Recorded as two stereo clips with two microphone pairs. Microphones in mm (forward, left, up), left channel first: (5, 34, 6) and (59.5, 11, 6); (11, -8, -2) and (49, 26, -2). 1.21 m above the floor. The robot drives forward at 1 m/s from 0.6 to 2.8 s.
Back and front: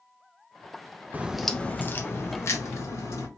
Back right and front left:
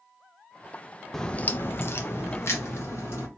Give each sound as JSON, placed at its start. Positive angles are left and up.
{"t": 1.1, "sound": "a crack", "azimuth_deg": -55, "distance_m": 0.6}